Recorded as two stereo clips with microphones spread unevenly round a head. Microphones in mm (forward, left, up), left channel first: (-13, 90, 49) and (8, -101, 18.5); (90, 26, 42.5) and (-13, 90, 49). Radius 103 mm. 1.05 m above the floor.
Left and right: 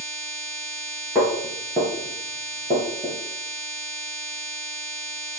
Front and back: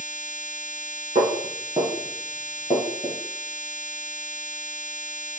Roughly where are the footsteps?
Behind.